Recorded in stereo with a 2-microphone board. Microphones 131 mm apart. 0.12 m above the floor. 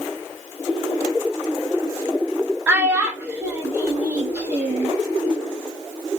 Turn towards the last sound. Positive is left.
turn(degrees=-15)  # may be behind; listen again after turning